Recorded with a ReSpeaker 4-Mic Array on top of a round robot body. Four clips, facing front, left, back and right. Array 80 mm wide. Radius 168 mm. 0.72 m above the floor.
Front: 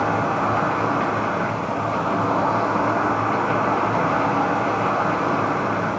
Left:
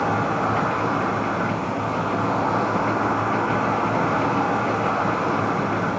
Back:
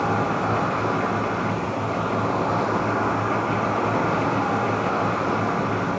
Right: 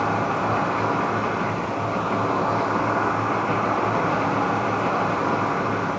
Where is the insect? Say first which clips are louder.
Left 1 dB, front 2 dB; 15° left, 1.2 m.